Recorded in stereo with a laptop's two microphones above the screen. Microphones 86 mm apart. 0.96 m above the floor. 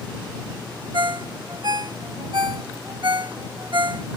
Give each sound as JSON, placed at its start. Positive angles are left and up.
{"t": 0.9, "sound": "a ringtone", "side_deg": -60}